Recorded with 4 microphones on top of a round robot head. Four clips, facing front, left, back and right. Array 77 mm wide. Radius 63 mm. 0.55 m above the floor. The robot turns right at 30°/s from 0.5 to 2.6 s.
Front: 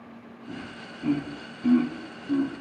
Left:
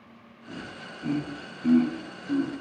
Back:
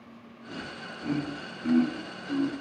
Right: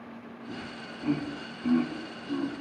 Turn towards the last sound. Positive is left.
turn(degrees=35)